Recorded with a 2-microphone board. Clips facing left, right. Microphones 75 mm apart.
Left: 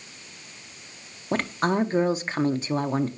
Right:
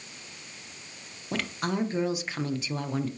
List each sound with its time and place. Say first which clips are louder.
1.3 s a woman speaking: left 6 dB; 40° left (ahead or behind), 0.6 m